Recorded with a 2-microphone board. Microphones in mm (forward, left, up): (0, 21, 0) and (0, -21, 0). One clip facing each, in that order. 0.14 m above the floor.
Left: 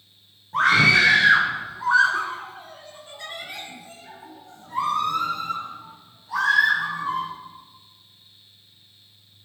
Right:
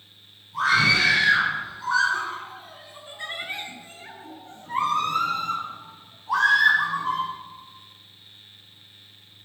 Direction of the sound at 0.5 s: 55° left (ahead or behind).